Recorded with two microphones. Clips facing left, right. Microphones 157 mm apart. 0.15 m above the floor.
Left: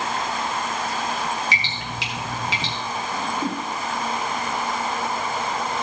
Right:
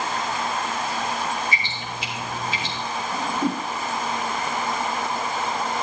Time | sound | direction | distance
1.5 | dripping | 85° left | 4 m
3.1 | a whoosh | 5° right (ahead or behind) | 1.3 m